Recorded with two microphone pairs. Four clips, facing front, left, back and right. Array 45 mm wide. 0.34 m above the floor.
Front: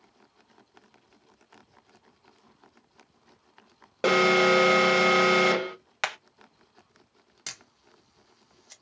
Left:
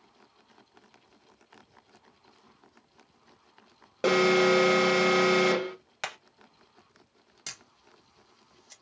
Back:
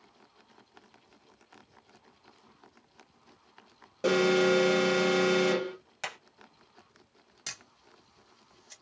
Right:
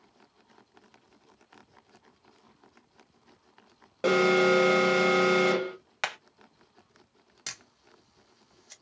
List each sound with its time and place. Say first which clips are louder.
4.0 s an alarm: even, front 4 dB; 10° left, 1.0 m
6.0 s hammering: right 4 dB, front 8 dB; 25° right, 0.6 m
7.5 s a camera shutter: right 2 dB, front 1 dB; 40° right, 1.3 m